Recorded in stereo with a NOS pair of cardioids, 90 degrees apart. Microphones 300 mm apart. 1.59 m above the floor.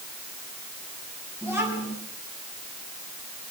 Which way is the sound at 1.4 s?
Straight ahead.